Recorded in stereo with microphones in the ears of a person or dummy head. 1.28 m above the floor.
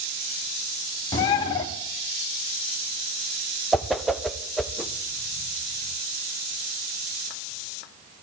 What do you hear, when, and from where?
1.1 s a bird: 25° left (ahead or behind), 0.8 m
3.7 s a whoosh: 5° left (ahead or behind), 0.6 m